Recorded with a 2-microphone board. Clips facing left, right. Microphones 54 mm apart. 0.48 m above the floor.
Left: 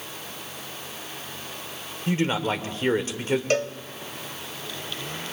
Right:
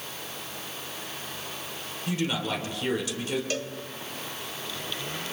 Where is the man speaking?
40° left (ahead or behind), 1.9 m.